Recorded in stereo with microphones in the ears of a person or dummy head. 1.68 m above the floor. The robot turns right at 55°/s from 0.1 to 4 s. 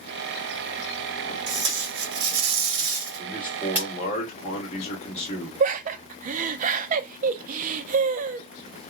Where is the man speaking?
5° right, 1.7 m; by 5.5 s 40° left, 1.7 m.